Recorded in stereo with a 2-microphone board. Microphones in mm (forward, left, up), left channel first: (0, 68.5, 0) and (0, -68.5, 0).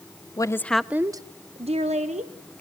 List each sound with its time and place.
0.4 s a woman speaking: 25° left (ahead or behind), 0.6 m; by 2.3 s 55° right (ahead or behind), 1.2 m